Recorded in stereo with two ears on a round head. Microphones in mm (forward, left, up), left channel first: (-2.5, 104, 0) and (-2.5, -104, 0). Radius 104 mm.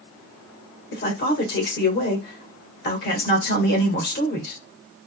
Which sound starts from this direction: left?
A man speaking, at 0.9 s.